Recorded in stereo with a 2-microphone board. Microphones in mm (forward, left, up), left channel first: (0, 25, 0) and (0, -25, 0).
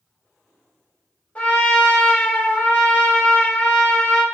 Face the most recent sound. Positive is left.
turn(degrees=25)  # may be behind; listen again after turning